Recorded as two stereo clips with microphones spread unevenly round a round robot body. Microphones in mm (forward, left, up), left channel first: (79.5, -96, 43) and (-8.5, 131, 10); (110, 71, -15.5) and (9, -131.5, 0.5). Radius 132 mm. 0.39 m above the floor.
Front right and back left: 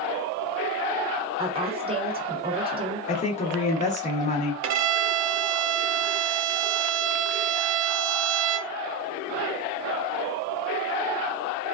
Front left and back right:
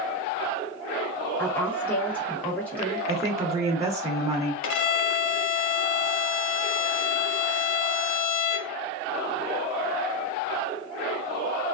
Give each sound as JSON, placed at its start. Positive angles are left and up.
{"t": 1.4, "sound": "a woman speaking", "azimuth_deg": 135, "distance_m": 0.9}
{"t": 3.1, "sound": "a woman speaking", "azimuth_deg": -55, "distance_m": 0.8}
{"t": 4.6, "sound": "a violin", "azimuth_deg": 70, "distance_m": 0.5}